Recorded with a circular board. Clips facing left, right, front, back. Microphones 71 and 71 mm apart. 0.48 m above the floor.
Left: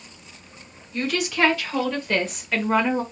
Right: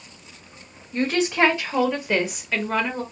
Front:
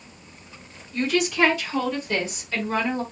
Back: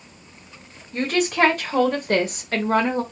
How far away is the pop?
No pop in this recording.